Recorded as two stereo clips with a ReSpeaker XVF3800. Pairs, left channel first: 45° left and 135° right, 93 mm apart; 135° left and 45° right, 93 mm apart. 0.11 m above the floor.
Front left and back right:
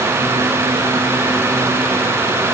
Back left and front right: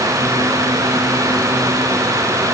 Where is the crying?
I don't hear crying.